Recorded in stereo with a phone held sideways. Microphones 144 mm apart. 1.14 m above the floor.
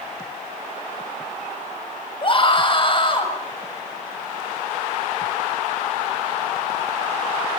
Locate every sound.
2.2 s a scream: 35° left (ahead or behind), 6 m